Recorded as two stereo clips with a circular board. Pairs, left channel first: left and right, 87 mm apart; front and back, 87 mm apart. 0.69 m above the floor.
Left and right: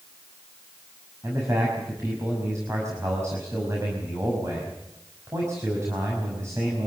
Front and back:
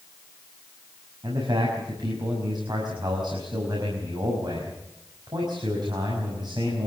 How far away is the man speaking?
About 5.5 m.